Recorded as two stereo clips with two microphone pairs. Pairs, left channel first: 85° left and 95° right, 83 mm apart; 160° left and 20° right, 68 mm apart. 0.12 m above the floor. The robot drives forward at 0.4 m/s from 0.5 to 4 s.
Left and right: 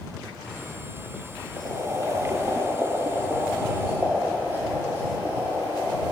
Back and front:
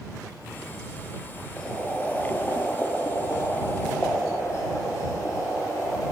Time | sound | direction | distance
1.6 | boiling | 120° right | 0.8 m